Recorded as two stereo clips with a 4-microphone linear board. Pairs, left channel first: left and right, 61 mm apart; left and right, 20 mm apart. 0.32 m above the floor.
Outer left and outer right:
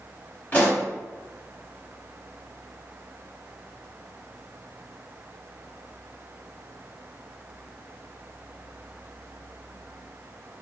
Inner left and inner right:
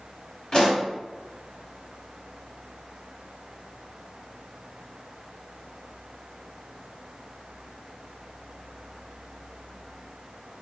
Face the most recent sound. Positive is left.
turn(degrees=25)  # may be behind; listen again after turning